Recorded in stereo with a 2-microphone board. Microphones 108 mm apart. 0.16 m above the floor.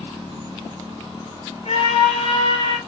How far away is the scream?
About 2.5 m.